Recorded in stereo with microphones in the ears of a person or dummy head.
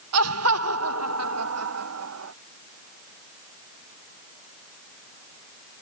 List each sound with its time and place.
0.1 s laughter: 85° right; by 2.3 s 90° right